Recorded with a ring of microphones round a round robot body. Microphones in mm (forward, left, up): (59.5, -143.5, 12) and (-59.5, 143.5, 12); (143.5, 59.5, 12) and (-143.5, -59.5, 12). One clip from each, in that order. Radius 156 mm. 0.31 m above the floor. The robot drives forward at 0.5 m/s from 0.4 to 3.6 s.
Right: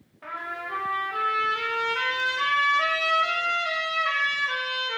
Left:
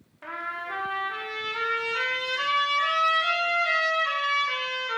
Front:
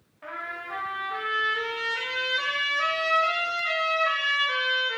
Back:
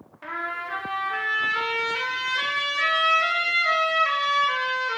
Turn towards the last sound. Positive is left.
turn(degrees=180)